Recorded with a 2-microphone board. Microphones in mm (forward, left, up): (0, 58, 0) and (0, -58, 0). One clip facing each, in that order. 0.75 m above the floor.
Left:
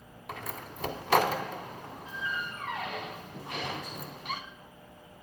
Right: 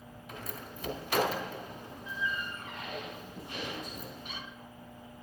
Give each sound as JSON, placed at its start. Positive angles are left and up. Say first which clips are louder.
{"t": 0.3, "sound": "a door slam", "louder": "left 3 dB", "side_deg": 80, "distance_m": 1.6}